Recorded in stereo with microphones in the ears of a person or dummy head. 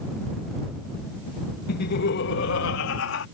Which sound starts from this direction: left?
Laughter, at 1.7 s.